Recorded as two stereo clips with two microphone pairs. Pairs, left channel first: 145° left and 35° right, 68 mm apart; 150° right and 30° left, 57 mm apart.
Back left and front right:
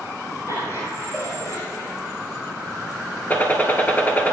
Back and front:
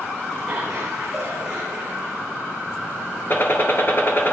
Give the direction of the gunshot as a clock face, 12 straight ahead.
6 o'clock.